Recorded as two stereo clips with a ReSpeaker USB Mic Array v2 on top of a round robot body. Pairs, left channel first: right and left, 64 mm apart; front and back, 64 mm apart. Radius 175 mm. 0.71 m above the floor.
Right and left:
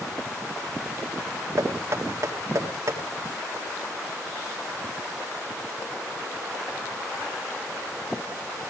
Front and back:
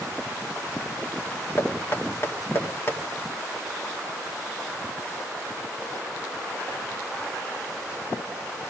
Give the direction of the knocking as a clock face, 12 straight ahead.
10 o'clock.